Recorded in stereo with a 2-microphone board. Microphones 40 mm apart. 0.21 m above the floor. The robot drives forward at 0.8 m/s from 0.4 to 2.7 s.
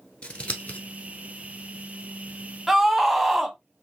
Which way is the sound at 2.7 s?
10° right (ahead or behind).